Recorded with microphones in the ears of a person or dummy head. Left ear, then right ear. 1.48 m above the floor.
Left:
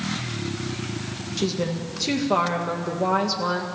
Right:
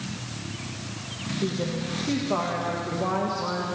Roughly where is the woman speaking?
Left.